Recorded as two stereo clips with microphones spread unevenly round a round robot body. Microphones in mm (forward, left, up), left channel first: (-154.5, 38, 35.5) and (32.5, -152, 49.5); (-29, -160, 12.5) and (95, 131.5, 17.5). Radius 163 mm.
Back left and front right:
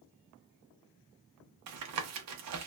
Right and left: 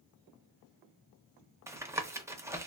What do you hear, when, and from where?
1.7 s tapping: 15° right, 0.5 m